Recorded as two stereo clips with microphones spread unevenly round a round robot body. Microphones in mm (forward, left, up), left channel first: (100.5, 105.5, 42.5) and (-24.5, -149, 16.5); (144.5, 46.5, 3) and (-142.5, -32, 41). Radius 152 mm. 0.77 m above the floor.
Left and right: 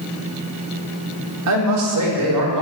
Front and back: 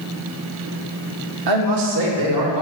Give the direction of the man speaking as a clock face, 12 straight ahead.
5 o'clock.